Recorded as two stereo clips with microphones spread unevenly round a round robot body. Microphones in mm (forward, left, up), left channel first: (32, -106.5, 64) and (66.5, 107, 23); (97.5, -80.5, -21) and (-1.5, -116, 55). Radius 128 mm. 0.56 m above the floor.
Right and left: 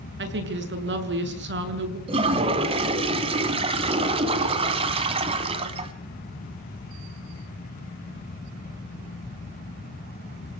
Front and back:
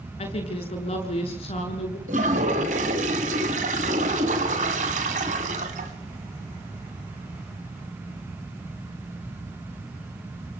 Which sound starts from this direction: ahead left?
A woman speaking, at 0.2 s.